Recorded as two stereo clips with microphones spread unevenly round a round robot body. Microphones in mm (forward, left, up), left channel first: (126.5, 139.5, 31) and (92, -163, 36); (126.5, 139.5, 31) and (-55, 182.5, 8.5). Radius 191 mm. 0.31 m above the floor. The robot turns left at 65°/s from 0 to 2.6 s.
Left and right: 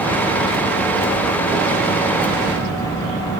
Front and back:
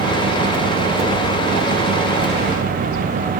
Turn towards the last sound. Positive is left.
No sound to turn to.